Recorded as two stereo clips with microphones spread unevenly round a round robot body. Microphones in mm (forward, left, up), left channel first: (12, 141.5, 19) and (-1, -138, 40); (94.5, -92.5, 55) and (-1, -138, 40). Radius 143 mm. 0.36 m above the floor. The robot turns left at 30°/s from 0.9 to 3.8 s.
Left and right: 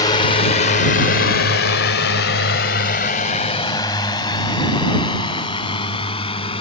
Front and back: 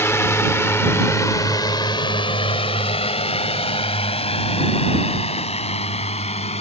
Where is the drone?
60° left; by 6.6 s 15° left.